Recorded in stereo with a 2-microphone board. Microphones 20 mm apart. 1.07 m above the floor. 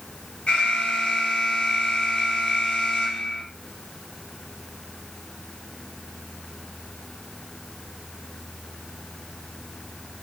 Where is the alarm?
55° left (ahead or behind), 2.5 m.